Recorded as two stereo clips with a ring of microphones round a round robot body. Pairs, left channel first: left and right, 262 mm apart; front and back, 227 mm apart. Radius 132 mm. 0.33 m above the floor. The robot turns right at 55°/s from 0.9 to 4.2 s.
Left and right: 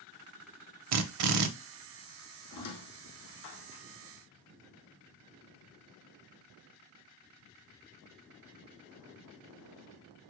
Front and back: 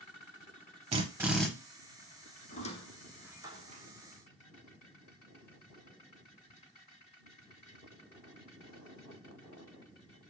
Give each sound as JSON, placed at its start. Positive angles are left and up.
{"t": 0.9, "sound": "a drill", "azimuth_deg": -115, "distance_m": 0.6}
{"t": 2.5, "sound": "a squeak", "azimuth_deg": 55, "distance_m": 1.1}